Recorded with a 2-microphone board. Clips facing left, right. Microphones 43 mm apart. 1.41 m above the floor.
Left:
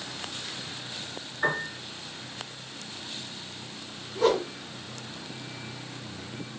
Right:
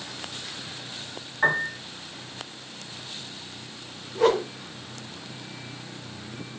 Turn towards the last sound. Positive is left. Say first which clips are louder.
# right 2 dB
turn(degrees=-75)  # may be behind; listen again after turning